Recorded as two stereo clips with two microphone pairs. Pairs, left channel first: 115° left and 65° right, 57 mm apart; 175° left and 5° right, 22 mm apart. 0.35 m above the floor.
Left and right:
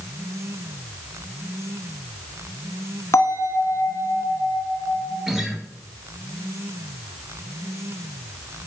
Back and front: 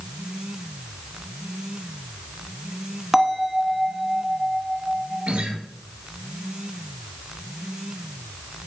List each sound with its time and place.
3.1 s a bell: 80° left, 0.9 m
5.3 s a guitar: 20° left, 1.4 m